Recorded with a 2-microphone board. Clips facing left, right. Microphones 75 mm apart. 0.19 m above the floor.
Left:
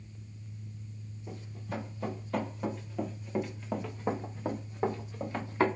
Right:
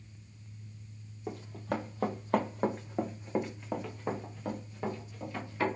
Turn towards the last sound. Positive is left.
turn(degrees=40)  # may be behind; listen again after turning